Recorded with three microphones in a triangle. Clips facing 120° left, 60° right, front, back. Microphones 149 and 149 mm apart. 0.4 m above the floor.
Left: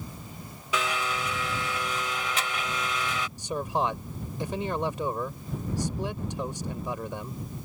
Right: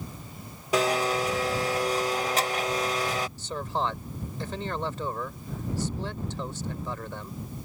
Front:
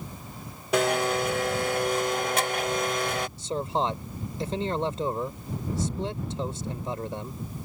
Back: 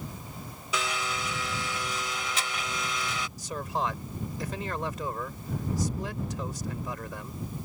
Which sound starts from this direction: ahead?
A blender, at 0.7 s.